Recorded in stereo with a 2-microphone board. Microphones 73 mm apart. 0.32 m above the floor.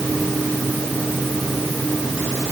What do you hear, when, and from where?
Only background noise.